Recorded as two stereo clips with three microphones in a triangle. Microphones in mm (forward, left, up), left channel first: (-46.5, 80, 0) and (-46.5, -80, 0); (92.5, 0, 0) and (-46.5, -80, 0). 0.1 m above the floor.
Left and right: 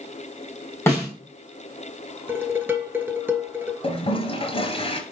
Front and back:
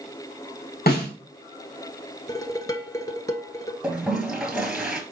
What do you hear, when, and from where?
0.9 s a snare drum: 15° left, 3.5 m
2.3 s dishes clattering: 20° right, 1.1 m
3.8 s a toilet flushing: 130° left, 1.0 m